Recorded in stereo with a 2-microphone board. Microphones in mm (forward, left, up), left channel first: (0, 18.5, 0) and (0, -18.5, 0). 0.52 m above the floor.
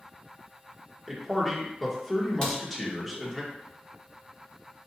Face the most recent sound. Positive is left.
turn(degrees=25)  # may be behind; listen again after turning